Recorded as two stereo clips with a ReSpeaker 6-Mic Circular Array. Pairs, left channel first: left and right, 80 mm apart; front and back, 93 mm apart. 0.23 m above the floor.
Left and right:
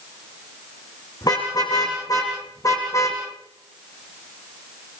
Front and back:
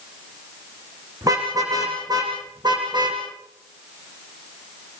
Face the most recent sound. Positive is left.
turn(degrees=145)